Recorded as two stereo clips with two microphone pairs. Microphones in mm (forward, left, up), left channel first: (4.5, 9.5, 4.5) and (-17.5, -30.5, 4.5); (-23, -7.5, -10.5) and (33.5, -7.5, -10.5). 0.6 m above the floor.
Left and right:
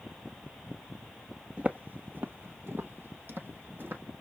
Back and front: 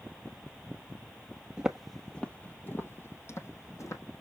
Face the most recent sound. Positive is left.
turn(degrees=-160)